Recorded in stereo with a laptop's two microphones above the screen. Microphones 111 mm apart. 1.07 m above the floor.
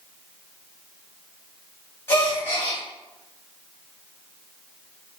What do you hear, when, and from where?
2.1 s a gasp: 25° left (ahead or behind), 1.2 m